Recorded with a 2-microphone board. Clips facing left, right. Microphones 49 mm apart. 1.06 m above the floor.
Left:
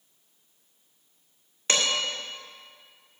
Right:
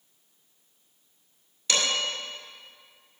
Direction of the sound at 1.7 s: 45° left (ahead or behind).